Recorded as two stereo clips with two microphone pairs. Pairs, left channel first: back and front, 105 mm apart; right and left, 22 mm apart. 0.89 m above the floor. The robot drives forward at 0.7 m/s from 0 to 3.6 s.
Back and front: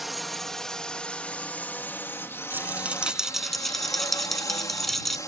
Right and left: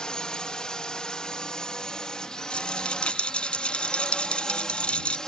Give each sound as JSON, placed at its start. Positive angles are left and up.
{"t": 0.0, "sound": "a drone", "azimuth_deg": -90}
{"t": 2.5, "sound": "a rattle", "azimuth_deg": -70}